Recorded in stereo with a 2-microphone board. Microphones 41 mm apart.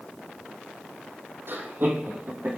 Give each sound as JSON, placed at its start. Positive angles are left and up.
{"t": 1.5, "sound": "laughter", "side_deg": -65, "distance_m": 5.0}